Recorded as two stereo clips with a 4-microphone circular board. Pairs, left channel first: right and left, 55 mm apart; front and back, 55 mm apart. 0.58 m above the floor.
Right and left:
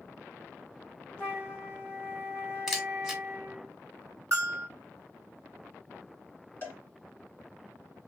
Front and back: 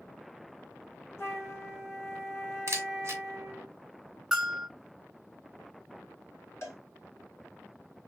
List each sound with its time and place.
1.2 s a flute: 25° right, 1.5 m
2.7 s a camera shutter: 175° left, 0.9 m
4.3 s a bell: 90° left, 1.1 m
6.6 s a cowbell: 35° right, 1.6 m